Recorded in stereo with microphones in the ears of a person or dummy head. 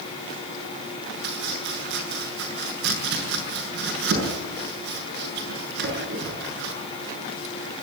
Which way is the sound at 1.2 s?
65° right (ahead or behind).